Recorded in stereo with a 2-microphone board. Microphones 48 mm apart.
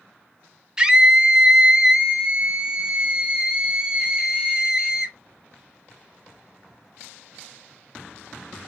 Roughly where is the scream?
Centre.